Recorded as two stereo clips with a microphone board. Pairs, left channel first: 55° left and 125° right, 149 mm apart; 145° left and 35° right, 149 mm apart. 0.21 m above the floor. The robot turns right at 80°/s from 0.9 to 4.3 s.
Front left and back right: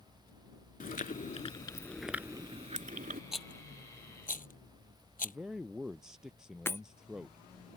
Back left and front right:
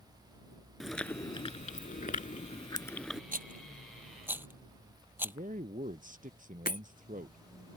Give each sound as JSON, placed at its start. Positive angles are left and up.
{"t": 0.8, "sound": "chewing", "azimuth_deg": 55}
{"t": 3.3, "sound": "a rattle", "azimuth_deg": -40}
{"t": 5.2, "sound": "a man speaking", "azimuth_deg": -40}
{"t": 6.7, "sound": "breaking glass", "azimuth_deg": 130}